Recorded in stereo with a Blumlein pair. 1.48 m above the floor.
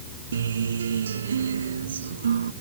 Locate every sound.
0.3 s a guitar: 70° right